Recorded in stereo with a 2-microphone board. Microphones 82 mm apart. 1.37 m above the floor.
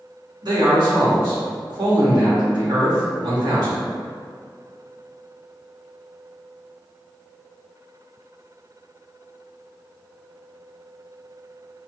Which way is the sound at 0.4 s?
55° right (ahead or behind).